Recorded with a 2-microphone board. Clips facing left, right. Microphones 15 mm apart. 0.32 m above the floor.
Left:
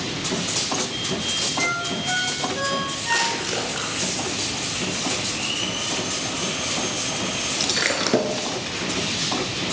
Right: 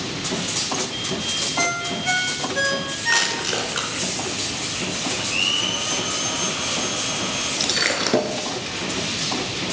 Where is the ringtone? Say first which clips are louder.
Right 1 dB; 30° right (ahead or behind), 2.5 m.